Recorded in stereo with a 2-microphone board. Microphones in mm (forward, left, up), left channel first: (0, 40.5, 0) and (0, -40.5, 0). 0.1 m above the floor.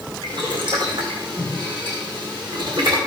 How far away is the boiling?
About 5.5 m.